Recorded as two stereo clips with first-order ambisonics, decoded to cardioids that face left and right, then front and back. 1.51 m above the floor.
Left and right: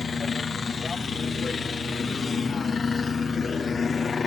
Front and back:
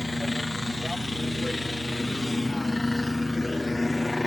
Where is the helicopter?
55° left.